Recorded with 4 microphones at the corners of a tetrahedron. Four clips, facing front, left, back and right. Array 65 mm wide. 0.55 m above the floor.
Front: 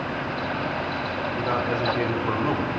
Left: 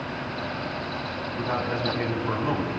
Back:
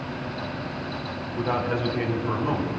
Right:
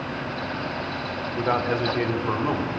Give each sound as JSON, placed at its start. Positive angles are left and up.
{"t": 1.4, "sound": "a man speaking", "azimuth_deg": -80, "distance_m": 2.0}